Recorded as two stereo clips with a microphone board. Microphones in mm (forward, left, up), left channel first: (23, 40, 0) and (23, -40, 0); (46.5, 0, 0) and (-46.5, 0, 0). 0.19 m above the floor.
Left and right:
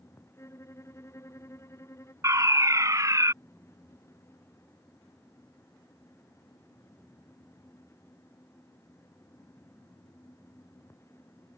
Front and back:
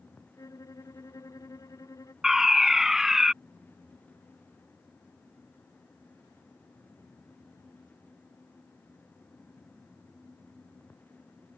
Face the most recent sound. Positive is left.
turn(degrees=-95)